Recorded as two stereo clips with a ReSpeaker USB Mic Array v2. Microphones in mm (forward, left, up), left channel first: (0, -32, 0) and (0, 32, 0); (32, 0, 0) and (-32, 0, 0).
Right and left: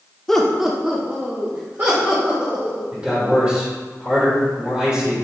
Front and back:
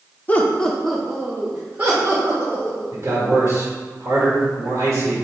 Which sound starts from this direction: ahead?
Laughter, at 0.3 s.